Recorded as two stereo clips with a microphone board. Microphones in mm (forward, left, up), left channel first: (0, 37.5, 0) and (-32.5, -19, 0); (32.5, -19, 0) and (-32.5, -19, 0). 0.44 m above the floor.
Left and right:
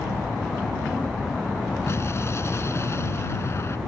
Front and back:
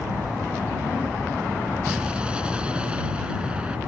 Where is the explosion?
105° left.